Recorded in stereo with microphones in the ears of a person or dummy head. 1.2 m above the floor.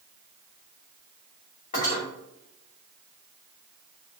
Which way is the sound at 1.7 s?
45° left (ahead or behind).